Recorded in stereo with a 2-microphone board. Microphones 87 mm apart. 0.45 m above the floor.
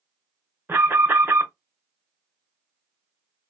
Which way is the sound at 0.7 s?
20° right (ahead or behind).